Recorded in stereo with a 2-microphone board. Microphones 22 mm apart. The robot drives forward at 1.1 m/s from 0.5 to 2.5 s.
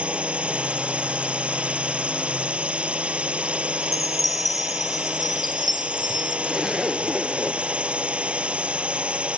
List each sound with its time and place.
0.0 s a drone: 70° right (ahead or behind)
3.8 s a chime: centre (ahead or behind)
6.4 s a zipper: 5° right (ahead or behind)